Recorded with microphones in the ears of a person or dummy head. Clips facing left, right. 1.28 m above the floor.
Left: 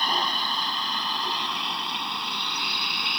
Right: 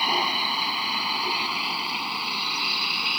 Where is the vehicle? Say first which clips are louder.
Right 1 dB; 10° right (ahead or behind); by 3.2 s 5° right (ahead or behind).